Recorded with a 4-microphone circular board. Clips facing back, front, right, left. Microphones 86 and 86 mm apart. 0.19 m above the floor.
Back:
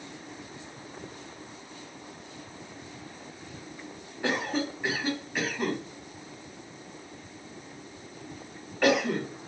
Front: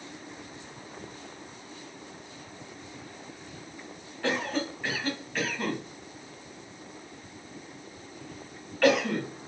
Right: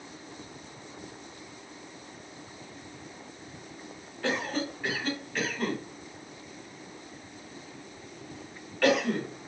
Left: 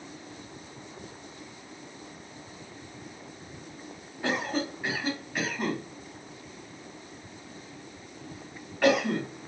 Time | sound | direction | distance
4.2 | a cough | 130° left | 1.4 m